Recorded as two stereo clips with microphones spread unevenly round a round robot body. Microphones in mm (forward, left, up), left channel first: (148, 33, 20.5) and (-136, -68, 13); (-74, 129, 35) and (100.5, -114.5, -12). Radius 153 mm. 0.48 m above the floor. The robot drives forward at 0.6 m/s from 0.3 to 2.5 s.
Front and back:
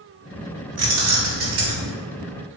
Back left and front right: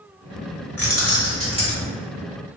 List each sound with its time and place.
0.8 s keys jangling: 150° right, 1.2 m; by 1.9 s 160° right, 1.7 m